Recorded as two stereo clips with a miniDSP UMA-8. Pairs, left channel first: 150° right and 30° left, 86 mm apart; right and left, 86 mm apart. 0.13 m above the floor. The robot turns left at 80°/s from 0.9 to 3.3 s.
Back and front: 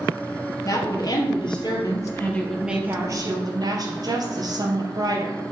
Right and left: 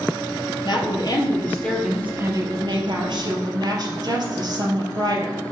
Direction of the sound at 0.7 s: 105° right.